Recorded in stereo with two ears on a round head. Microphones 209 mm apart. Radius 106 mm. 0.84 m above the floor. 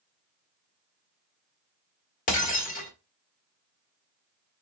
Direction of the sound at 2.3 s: 35° left (ahead or behind).